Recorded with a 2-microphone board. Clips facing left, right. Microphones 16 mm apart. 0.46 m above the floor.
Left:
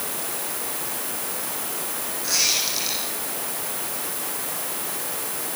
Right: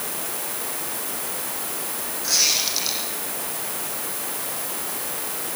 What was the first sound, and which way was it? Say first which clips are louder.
A squeak: right 2 dB; 15° right (ahead or behind).